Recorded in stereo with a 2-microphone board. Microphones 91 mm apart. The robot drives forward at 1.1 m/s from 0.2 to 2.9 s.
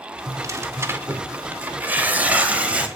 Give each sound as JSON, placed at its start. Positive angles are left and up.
{"t": 0.3, "sound": "tearing paper", "side_deg": -40, "distance_m": 1.5}